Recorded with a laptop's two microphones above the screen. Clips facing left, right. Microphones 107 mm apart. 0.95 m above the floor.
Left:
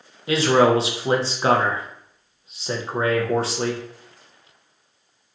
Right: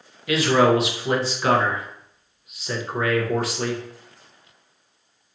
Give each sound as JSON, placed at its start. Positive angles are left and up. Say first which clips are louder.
{"t": 0.3, "sound": "a man speaking", "louder": "left 1 dB", "side_deg": 30, "distance_m": 0.5}